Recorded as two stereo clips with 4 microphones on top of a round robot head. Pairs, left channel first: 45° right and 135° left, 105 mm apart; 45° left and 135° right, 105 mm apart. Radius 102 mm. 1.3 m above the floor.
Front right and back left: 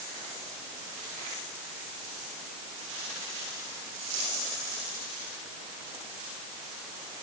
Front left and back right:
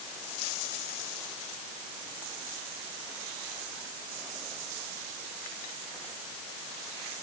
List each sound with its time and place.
Only background noise.